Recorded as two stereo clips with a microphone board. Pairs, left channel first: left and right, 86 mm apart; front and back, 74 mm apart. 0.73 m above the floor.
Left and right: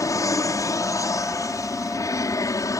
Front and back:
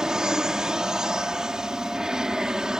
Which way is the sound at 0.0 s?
105° left.